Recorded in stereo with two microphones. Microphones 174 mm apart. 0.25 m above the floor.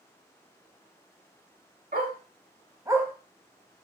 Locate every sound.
1.9 s a dog barking: 55° right (ahead or behind), 0.8 m; by 3.8 s 25° left (ahead or behind), 0.7 m